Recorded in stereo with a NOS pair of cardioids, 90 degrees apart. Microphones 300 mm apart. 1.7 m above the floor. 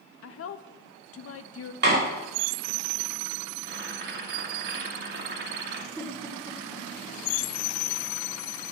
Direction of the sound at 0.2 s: 50° left.